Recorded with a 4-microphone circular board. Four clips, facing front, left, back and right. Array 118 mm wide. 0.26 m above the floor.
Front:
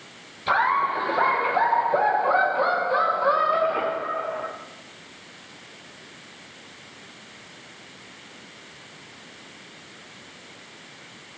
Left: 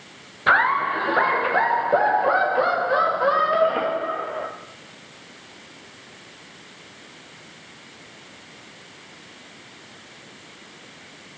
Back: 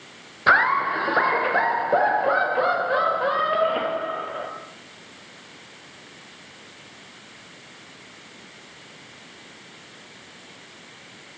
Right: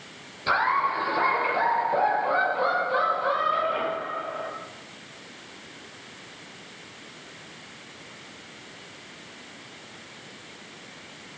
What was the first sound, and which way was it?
Laughter, 155° left.